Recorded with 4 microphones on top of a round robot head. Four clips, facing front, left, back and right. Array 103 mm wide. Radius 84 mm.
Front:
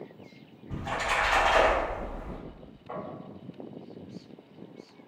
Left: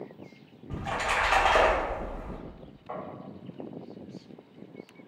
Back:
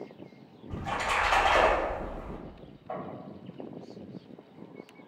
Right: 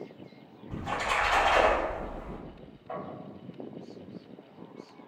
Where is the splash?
100° left, 1.3 m.